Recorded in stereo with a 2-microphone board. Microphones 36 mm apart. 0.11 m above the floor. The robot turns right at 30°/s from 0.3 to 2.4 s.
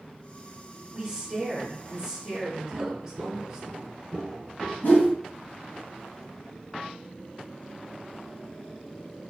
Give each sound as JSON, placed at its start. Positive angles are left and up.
{"t": 0.9, "sound": "a woman speaking", "side_deg": -15, "distance_m": 1.1}
{"t": 2.7, "sound": "footsteps", "side_deg": -80, "distance_m": 0.6}
{"t": 4.8, "sound": "a whoosh", "side_deg": 70, "distance_m": 1.2}